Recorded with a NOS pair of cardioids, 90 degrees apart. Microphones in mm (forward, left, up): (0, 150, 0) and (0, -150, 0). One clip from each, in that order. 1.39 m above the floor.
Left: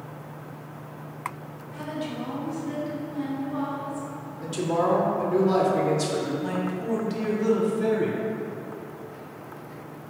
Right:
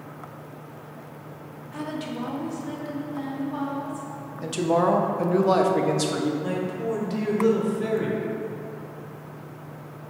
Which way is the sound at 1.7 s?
55° right.